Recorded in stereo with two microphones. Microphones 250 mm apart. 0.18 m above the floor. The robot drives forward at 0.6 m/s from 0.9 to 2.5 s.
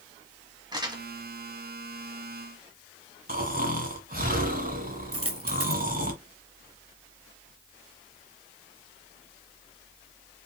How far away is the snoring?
About 1.8 m.